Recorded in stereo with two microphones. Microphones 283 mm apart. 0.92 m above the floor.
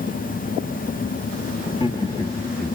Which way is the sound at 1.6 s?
25° left (ahead or behind).